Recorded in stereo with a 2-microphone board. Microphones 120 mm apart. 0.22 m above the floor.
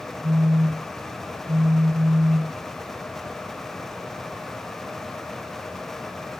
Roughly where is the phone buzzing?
Right.